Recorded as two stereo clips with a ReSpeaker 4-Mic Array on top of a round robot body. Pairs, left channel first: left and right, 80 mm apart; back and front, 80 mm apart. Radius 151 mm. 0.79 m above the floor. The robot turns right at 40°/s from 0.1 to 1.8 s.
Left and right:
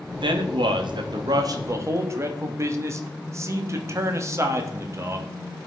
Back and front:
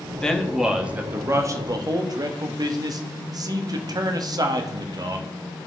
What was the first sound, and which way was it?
A man speaking, 100° right.